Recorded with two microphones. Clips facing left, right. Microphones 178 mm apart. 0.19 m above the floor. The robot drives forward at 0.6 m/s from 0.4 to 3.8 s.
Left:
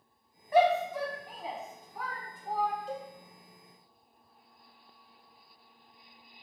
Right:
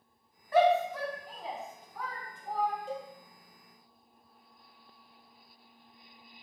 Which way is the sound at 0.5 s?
15° left (ahead or behind).